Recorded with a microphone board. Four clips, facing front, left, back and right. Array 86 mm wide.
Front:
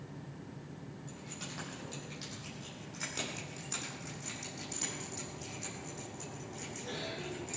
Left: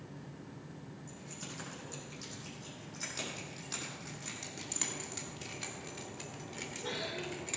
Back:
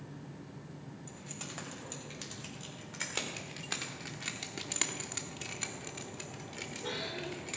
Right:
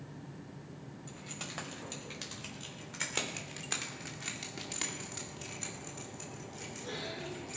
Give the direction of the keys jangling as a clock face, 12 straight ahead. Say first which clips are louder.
Right 1 dB, even; 3 o'clock.